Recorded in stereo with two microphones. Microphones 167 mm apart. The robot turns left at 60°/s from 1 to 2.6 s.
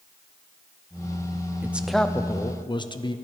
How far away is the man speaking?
About 0.5 m.